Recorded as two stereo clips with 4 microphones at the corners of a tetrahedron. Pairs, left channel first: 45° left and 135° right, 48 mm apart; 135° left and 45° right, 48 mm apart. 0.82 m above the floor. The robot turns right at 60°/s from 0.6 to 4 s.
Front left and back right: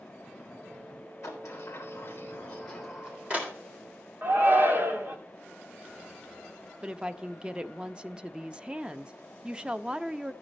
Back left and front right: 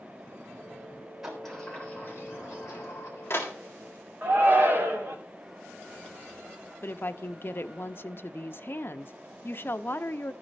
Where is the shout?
90° right, 2 m.